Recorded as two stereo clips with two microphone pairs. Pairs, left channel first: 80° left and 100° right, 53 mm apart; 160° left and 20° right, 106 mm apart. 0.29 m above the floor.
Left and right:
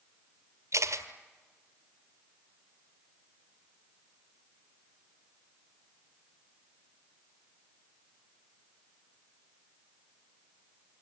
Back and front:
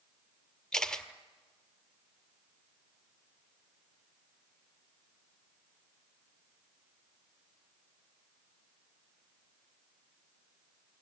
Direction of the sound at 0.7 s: 120° right.